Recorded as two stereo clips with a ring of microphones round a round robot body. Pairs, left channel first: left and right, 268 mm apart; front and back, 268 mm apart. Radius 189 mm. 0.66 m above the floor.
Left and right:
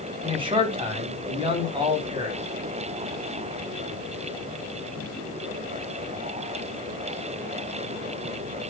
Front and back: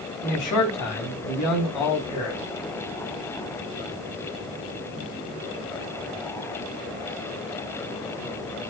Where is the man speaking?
20° right, 5 m.